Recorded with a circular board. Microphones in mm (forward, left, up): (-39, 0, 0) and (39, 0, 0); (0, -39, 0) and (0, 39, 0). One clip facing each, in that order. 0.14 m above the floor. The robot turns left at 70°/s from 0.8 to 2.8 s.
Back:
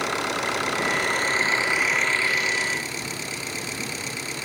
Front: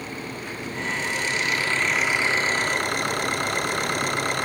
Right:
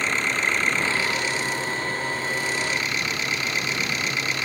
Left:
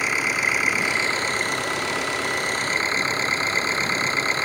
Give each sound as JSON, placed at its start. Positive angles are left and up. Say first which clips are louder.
{"t": 0.0, "sound": "an engine running", "louder": "back 8 dB, left 1 dB", "azimuth_deg": 170}